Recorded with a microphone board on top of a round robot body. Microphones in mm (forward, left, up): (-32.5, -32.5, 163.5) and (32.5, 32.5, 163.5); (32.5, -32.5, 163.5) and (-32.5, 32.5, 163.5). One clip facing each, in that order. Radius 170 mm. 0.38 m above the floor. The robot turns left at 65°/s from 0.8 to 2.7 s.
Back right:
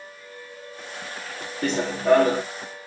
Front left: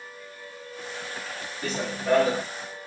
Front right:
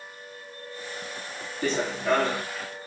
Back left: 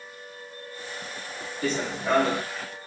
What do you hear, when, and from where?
1.6 s running footsteps: 115° right, 3 m; by 2.4 s 165° right, 3 m